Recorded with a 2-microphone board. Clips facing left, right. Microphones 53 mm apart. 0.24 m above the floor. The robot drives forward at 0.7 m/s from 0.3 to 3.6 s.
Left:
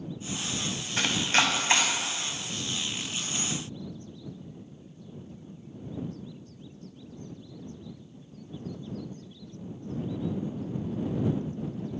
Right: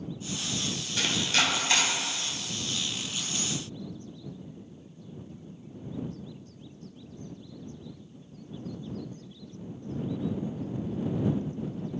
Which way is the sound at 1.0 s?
35° left (ahead or behind).